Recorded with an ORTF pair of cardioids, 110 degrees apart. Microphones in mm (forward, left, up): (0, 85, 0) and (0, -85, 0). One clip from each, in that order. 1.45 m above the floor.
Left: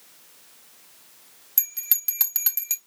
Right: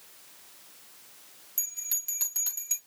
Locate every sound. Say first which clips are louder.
1.6 s a bell: left 2 dB; 55° left, 0.9 m